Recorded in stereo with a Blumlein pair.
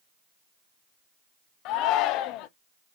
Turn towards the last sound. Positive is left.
turn(degrees=40)